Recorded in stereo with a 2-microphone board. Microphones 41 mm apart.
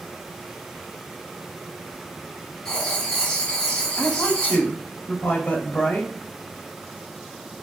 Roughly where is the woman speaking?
Left.